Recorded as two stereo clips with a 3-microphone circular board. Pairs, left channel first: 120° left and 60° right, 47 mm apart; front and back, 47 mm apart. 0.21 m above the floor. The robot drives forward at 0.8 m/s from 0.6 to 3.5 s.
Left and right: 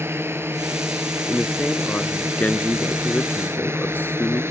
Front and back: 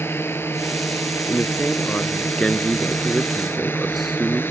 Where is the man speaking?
50° left; by 4.4 s 90° left.